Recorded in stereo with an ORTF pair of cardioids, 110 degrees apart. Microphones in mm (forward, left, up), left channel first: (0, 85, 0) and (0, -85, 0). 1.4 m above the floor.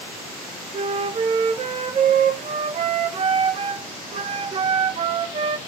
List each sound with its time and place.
0.7 s a flute: 40° right, 0.9 m